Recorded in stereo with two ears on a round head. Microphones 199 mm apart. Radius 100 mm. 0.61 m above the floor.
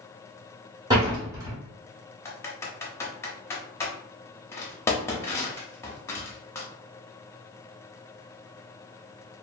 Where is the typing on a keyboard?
10° left (ahead or behind), 0.6 m.